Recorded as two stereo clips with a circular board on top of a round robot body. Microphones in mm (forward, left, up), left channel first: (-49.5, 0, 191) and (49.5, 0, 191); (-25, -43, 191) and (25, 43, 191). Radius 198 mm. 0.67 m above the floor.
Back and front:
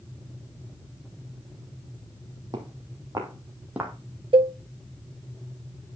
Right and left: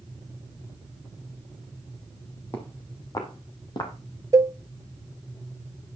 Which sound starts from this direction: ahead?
A cowbell, at 4.3 s.